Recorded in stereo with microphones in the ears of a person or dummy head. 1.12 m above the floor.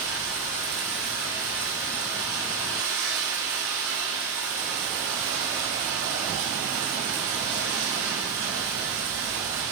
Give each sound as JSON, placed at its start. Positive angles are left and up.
{"t": 0.0, "sound": "running water", "side_deg": -10, "distance_m": 1.1}